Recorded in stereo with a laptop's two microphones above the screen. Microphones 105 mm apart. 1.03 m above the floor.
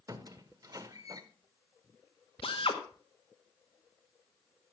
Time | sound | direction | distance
0.1 | a squeak | 35° right (ahead or behind) | 0.9 m
2.4 | a drill | 70° left (ahead or behind) | 1.5 m